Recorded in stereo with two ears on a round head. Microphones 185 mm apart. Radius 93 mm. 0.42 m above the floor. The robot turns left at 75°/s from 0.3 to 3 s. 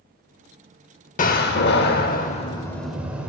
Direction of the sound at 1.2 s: 130° left.